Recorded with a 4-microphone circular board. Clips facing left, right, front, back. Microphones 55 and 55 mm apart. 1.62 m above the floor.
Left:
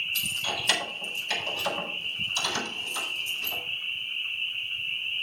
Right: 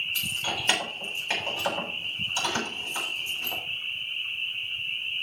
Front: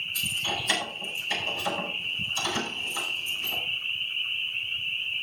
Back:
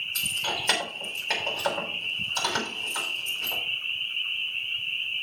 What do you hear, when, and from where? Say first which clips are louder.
0.1 s keys jangling: even, even; 150° right, 6.5 m